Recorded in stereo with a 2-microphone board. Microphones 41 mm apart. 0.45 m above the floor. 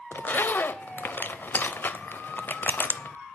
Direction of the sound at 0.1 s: 55° left (ahead or behind).